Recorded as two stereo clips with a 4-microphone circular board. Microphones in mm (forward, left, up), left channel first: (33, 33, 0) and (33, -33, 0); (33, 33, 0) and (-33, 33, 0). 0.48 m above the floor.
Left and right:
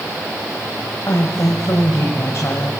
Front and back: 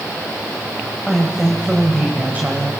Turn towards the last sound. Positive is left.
turn(degrees=130)